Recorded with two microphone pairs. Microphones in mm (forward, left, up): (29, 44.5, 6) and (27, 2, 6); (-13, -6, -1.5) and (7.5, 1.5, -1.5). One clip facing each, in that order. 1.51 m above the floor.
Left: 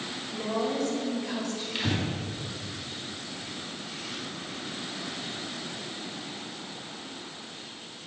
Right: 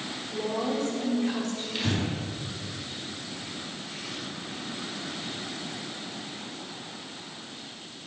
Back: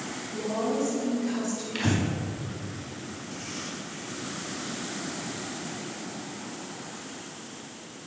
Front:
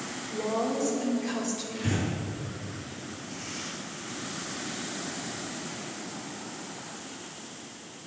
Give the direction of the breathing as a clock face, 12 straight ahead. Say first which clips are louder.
Right 1 dB, back 5 dB; 6 o'clock.